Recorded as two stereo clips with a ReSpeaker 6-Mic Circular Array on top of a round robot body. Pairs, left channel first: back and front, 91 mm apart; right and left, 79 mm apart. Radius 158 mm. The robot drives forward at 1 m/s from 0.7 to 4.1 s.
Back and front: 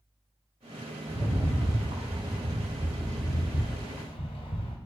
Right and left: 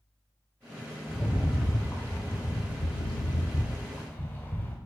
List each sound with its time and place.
1.1 s a rattle: 15° right, 2 m; by 4.8 s 155° right, 1.2 m